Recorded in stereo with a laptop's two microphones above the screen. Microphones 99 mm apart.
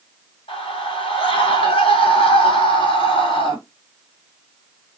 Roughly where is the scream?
Left.